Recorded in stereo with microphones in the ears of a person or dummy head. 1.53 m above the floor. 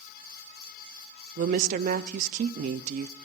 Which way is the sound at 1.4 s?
50° right (ahead or behind).